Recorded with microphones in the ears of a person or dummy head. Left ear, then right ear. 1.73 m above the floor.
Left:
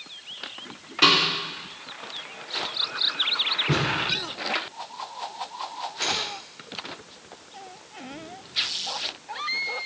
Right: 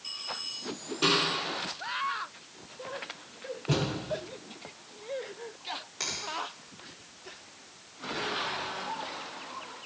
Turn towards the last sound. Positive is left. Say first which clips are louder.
# left 9 dB
turn(degrees=-70)  # may be behind; listen again after turning